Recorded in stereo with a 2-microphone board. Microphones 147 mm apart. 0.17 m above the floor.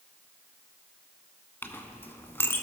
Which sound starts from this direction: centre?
A clink, at 1.6 s.